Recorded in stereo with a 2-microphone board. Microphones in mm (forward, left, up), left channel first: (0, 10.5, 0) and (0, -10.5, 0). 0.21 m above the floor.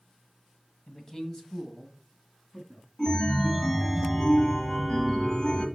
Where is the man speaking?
30° left (ahead or behind), 1.5 m; by 2.9 s 10° left (ahead or behind), 2.5 m.